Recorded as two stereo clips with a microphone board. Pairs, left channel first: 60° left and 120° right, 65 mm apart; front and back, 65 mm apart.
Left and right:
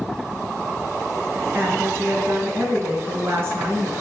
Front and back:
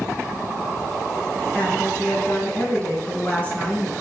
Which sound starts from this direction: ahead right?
A woman speaking, at 1.5 s.